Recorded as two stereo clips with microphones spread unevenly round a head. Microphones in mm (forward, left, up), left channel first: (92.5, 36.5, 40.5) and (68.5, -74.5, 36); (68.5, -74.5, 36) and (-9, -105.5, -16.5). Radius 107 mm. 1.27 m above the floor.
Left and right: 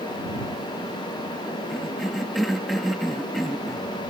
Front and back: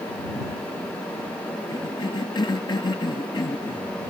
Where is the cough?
10° right.